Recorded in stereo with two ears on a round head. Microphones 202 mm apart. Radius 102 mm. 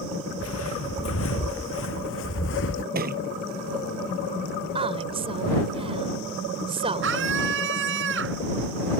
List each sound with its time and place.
0.4 s footsteps: 65° left (ahead or behind); by 2.9 s 55° left (ahead or behind)
3.0 s a thud: 45° right (ahead or behind)
4.8 s a woman speaking: 25° right (ahead or behind)
7.0 s a scream: 55° right (ahead or behind)